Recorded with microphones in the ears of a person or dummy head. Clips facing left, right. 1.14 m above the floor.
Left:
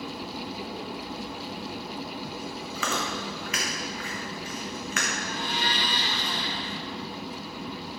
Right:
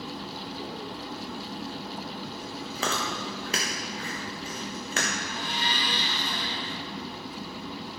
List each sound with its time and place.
2.8 s chewing: 30° right (ahead or behind), 1.0 m
5.2 s a blender: 65° left (ahead or behind), 1.9 m